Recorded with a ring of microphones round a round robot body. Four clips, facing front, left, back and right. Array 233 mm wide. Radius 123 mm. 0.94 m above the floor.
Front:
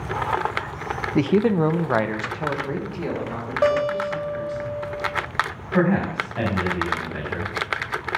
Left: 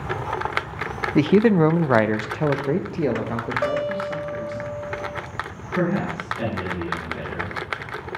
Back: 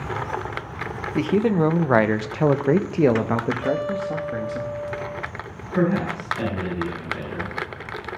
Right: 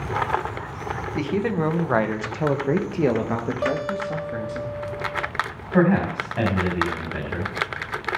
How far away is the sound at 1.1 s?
About 0.8 m.